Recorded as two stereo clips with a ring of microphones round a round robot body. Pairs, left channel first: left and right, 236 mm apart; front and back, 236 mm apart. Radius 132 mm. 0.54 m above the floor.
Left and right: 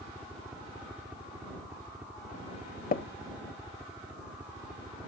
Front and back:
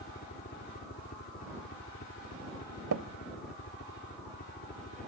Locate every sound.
0.0 s a helicopter: 10° right
2.9 s tapping: 145° left